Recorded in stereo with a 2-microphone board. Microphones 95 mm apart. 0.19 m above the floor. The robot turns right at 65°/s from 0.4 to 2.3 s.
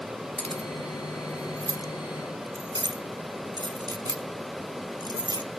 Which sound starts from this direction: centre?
Keys jangling, at 0.4 s.